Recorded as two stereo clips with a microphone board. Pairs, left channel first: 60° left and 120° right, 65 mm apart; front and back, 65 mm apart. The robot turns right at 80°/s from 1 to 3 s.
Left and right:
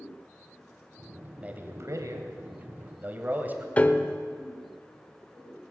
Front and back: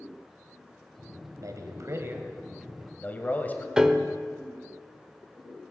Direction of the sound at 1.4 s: 170° left.